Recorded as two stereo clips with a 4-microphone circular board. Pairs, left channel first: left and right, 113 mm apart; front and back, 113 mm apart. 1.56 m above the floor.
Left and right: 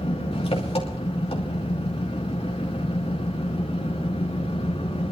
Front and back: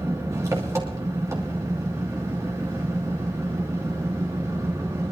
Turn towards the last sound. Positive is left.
turn(degrees=120)